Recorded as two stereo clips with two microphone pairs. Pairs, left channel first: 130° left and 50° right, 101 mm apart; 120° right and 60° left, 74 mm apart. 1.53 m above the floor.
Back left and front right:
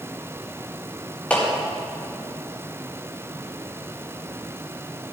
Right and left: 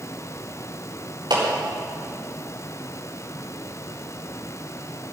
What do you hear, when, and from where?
1.3 s a clap: 55° left, 4 m